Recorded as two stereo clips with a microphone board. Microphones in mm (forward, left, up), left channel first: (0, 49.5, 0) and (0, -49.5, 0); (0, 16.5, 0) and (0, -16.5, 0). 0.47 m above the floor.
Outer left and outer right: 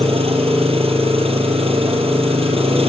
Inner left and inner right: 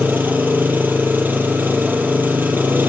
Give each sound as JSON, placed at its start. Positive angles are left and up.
{"t": 0.0, "sound": "an engine running", "side_deg": -90, "distance_m": 3.0}